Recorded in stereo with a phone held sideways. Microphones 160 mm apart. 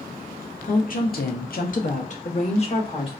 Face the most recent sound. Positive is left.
turn(degrees=35)  # may be behind; listen again after turning